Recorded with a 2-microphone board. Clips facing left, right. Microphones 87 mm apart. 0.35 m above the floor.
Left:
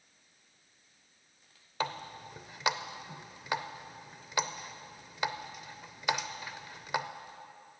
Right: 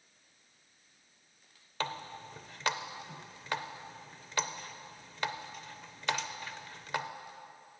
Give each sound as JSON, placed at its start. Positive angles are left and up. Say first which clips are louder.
{"t": 1.8, "sound": "a running tap", "louder": "left 2 dB", "side_deg": 10, "distance_m": 0.6}